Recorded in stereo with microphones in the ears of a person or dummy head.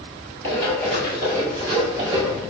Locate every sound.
0.4 s running footsteps: 15° left (ahead or behind), 2 m; by 2.4 s 5° right (ahead or behind), 1.6 m